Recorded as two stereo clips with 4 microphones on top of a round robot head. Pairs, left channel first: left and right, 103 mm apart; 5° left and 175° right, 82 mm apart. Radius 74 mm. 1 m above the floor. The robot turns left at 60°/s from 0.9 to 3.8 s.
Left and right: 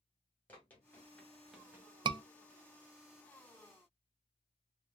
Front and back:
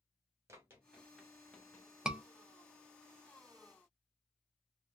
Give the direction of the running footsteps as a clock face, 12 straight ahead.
7 o'clock.